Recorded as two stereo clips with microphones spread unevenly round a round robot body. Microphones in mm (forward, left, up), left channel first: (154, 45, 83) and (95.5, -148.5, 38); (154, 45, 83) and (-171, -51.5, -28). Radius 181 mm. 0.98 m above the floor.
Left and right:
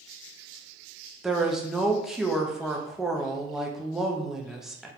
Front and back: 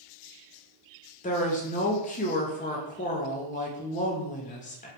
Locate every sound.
1.2 s a woman speaking: 65° right, 0.6 m